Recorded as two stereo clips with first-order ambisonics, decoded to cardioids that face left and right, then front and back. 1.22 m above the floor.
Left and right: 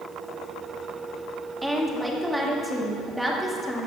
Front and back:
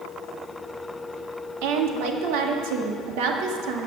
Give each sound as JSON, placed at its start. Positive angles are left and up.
{"t": 1.6, "sound": "a woman speaking", "azimuth_deg": 180, "distance_m": 2.0}